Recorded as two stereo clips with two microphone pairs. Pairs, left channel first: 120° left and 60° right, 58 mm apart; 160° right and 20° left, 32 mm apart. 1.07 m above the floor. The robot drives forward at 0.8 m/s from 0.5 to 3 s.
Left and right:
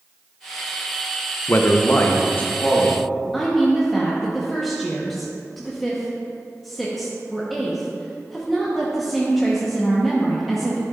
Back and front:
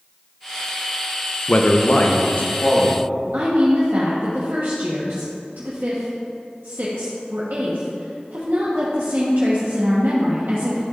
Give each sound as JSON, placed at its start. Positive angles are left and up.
{"t": 1.5, "sound": "a man speaking", "azimuth_deg": 160, "distance_m": 0.6}
{"t": 3.3, "sound": "a woman speaking", "azimuth_deg": 30, "distance_m": 1.1}